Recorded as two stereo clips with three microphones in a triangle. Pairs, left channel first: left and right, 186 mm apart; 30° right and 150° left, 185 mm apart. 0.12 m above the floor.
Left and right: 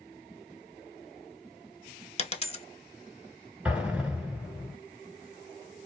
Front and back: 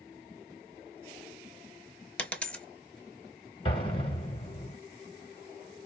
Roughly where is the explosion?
Ahead.